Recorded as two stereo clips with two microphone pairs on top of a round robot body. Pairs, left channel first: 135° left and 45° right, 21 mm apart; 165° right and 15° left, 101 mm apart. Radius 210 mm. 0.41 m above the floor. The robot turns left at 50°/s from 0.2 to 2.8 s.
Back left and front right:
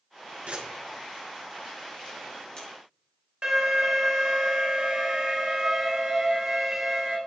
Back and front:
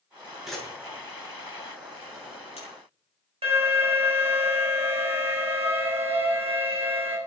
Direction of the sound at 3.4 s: 10° left.